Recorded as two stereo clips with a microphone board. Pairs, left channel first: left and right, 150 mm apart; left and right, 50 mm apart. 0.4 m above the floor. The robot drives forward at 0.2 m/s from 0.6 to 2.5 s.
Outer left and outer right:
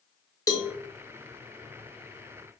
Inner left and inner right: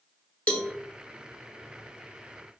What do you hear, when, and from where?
0.5 s a cowbell: 20° left (ahead or behind), 0.8 m